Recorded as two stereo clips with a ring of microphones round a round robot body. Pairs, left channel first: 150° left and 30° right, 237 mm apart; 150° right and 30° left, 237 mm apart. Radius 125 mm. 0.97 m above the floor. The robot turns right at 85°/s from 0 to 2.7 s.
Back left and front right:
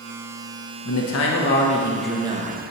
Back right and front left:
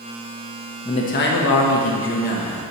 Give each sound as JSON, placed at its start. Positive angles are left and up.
{"t": 0.8, "sound": "a man speaking", "azimuth_deg": 135, "distance_m": 1.1}